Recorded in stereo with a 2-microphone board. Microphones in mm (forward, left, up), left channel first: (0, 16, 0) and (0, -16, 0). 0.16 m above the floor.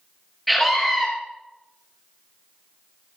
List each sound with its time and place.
0.5 s a scream: centre (ahead or behind), 2.5 m